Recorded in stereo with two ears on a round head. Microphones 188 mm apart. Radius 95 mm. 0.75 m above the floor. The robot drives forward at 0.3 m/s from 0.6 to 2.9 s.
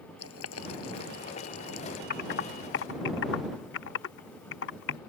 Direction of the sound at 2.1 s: 40° left (ahead or behind).